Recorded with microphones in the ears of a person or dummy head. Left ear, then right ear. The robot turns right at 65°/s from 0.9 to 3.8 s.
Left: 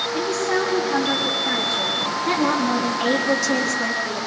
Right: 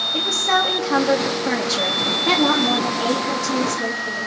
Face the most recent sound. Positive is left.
turn(degrees=75)